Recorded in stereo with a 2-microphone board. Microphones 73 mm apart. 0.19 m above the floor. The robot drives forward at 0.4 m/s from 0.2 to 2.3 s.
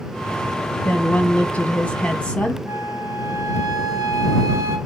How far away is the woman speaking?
About 1.3 m.